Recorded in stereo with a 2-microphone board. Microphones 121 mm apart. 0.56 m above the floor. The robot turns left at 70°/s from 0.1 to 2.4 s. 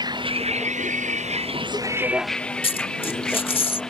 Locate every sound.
0.0 s a vehicle: 35° right (ahead or behind); by 3.9 s 5° left (ahead or behind)
2.6 s a dropped coin: 50° left (ahead or behind)